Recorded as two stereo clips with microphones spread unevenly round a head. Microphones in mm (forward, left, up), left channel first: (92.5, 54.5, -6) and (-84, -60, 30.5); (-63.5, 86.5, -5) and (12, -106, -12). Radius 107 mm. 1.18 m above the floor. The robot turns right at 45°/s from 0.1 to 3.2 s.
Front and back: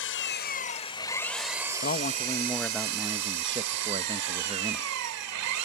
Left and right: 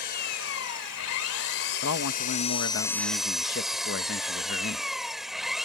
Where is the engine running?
65° left; by 5.7 s 155° right.